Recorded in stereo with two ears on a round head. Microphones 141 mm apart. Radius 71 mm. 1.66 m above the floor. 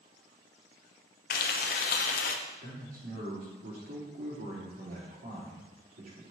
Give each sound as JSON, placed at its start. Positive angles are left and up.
{"t": 1.3, "sound": "frying", "side_deg": 55, "distance_m": 0.8}
{"t": 2.6, "sound": "a man speaking", "side_deg": -65, "distance_m": 3.5}